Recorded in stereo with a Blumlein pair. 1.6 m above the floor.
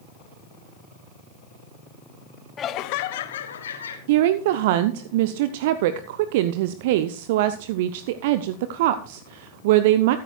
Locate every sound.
2.6 s laughter: 20° left, 0.7 m; by 4.0 s 70° left, 2 m
4.1 s a woman speaking: 50° right, 0.6 m